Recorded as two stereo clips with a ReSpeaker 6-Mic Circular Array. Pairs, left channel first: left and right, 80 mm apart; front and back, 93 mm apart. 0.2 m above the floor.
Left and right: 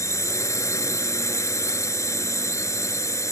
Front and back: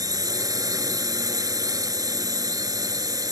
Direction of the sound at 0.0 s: 135° left.